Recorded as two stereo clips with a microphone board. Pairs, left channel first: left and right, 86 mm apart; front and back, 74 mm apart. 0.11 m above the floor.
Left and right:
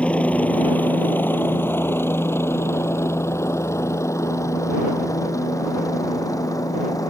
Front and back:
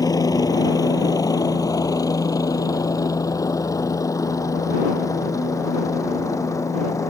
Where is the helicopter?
15° left; by 7.1 s 45° left.